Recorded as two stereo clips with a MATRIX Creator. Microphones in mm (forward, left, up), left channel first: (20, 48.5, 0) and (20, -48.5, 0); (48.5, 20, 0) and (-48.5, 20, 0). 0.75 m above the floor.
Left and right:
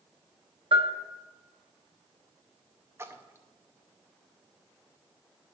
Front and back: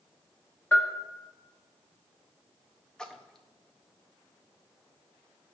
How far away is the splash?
About 0.6 m.